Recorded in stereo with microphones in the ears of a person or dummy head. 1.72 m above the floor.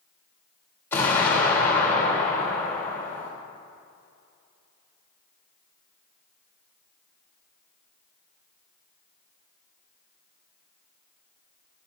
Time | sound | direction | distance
0.9 | an explosion | 15° left (ahead or behind) | 2.5 m